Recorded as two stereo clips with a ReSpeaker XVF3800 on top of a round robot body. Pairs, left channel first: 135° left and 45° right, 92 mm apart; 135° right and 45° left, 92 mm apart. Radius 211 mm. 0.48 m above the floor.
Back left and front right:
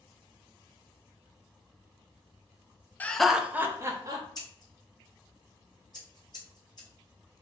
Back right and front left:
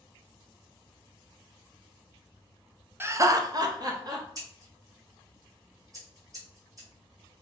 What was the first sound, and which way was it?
Laughter, 80° left.